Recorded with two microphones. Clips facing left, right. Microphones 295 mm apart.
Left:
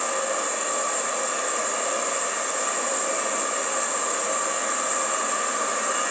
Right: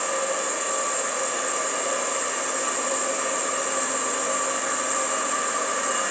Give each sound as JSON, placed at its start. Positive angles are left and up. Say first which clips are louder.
{"t": 0.0, "sound": "an insect", "louder": "right 1 dB", "side_deg": -40, "distance_m": 0.9}